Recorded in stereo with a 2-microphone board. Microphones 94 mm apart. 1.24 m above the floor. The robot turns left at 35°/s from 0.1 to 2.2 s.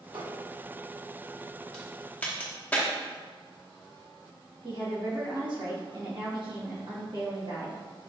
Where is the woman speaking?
60° right (ahead or behind), 1.4 m.